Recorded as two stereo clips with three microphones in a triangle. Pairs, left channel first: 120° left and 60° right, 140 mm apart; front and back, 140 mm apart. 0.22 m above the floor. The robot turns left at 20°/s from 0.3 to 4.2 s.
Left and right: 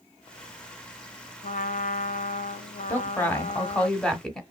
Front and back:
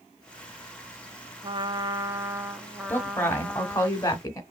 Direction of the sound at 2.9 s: 65° left.